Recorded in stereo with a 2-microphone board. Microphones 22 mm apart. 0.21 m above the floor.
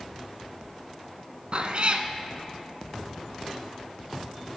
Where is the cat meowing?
50° right (ahead or behind), 0.7 m.